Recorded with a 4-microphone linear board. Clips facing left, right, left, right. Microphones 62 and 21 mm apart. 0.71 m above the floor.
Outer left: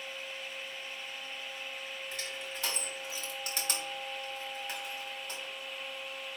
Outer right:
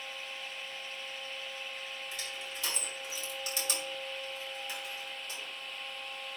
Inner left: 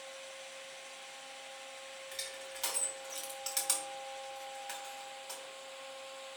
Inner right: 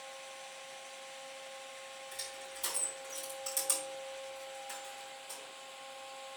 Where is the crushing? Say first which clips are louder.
Outer left 1 dB, inner left 2 dB; 40° left (ahead or behind), 3 m.